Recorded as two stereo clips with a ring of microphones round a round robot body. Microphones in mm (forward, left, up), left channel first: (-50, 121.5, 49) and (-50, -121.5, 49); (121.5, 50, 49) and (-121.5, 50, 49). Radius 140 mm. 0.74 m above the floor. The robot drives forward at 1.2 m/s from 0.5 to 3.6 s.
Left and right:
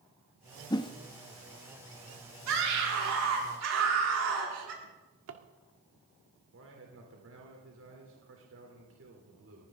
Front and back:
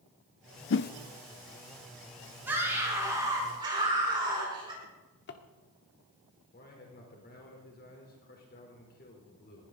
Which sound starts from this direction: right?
A scream, at 2.5 s.